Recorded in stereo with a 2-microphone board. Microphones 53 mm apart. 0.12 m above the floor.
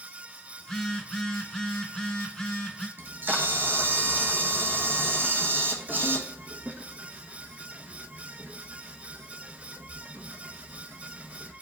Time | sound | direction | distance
0.6 | a phone buzzing | 15° left (ahead or behind) | 0.7 m
3.0 | a camera shutter | 40° right (ahead or behind) | 1.1 m